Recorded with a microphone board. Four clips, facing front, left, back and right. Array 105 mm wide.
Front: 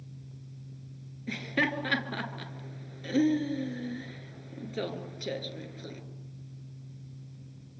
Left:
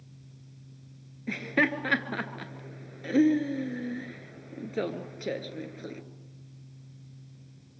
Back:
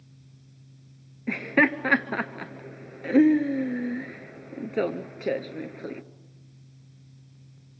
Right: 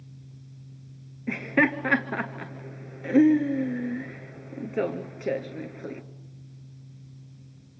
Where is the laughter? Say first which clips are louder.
Right 4 dB, back 8 dB; 165° right, 1.4 m.